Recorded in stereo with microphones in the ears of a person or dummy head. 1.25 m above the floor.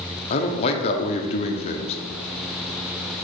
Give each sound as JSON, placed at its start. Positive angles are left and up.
{"t": 0.3, "sound": "a man speaking", "side_deg": 30, "distance_m": 0.7}